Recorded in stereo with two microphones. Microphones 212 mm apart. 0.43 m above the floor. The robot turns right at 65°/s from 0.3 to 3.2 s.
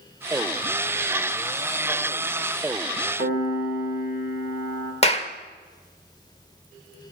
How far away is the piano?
About 2.0 m.